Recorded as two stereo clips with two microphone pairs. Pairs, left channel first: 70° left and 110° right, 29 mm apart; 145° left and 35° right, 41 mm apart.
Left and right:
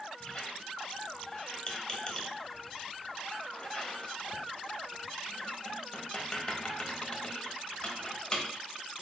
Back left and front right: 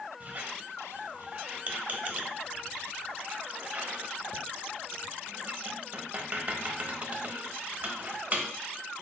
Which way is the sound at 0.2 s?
15° left.